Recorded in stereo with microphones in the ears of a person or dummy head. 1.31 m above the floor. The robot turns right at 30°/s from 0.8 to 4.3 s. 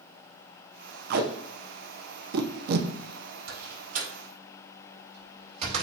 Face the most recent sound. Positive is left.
turn(degrees=-40)  # may be behind; listen again after turning